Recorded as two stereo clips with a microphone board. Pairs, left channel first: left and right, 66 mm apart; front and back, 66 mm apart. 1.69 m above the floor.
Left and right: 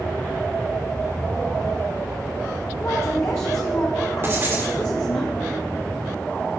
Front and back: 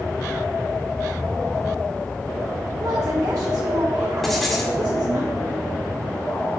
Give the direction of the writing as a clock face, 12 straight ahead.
3 o'clock.